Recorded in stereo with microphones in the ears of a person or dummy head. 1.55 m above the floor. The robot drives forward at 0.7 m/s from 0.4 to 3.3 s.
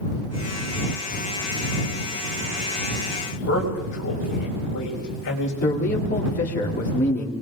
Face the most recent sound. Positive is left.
turn(degrees=45)  # may be behind; listen again after turning